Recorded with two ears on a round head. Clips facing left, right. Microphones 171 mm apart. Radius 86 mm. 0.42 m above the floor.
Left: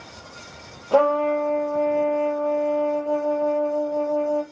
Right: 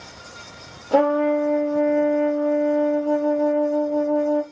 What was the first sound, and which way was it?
A trumpet, 10° right (ahead or behind).